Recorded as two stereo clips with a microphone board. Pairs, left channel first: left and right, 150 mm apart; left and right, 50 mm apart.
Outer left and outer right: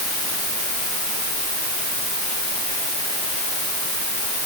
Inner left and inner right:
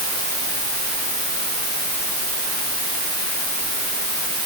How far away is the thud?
No thud in this recording.